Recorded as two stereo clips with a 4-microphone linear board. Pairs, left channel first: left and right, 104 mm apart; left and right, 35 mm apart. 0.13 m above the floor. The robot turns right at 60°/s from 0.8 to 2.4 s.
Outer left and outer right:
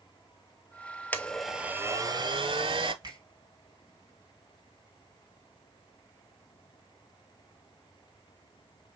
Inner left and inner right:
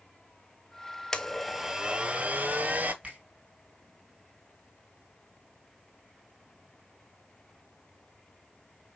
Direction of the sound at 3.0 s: 40° right (ahead or behind).